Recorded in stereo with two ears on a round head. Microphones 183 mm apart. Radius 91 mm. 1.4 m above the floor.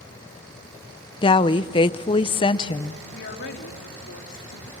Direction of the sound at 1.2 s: 25° left (ahead or behind).